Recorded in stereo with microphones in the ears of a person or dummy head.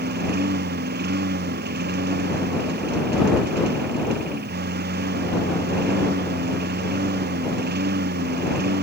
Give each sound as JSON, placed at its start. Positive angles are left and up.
{"t": 0.0, "sound": "a lawn mower", "side_deg": -55}